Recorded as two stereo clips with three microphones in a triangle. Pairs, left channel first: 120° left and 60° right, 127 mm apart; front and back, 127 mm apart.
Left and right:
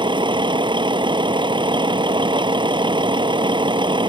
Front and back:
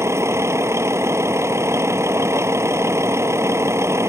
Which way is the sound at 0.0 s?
110° right.